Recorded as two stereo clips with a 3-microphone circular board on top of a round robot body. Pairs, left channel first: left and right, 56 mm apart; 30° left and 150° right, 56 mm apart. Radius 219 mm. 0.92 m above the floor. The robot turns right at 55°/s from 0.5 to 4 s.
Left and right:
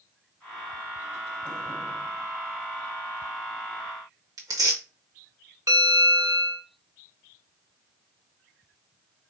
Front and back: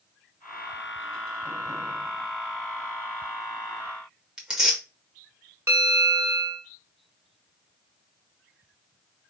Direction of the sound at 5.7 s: 110° right.